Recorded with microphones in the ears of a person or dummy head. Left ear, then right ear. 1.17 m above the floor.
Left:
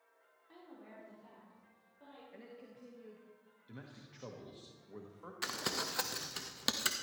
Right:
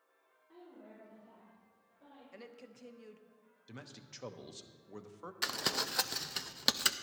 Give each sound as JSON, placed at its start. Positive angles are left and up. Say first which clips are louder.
{"t": 0.5, "sound": "a woman speaking", "louder": "even", "side_deg": 35, "distance_m": 4.0}
{"t": 2.3, "sound": "a woman speaking", "louder": "right 1 dB", "side_deg": -75, "distance_m": 1.1}
{"t": 3.7, "sound": "a man speaking", "louder": "right 3 dB", "side_deg": -75, "distance_m": 1.0}
{"t": 5.4, "sound": "crumpling", "louder": "right 3 dB", "side_deg": -20, "distance_m": 0.6}